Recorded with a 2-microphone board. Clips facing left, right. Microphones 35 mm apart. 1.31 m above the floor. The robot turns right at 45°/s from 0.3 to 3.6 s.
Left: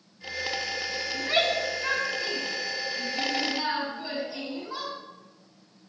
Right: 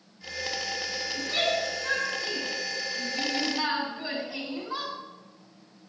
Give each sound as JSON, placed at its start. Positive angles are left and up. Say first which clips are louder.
{"t": 1.1, "sound": "a shout", "louder": "left 2 dB", "side_deg": 85, "distance_m": 5.5}